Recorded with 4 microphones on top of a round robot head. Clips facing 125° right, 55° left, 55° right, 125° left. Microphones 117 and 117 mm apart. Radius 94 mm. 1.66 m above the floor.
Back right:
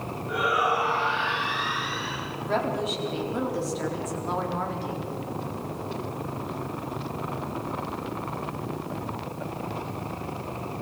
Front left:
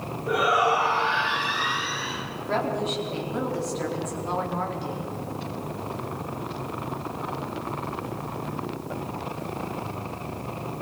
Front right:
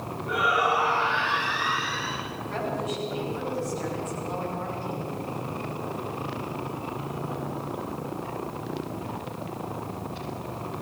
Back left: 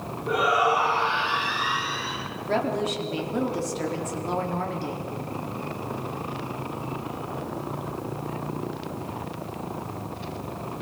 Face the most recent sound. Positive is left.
turn(degrees=145)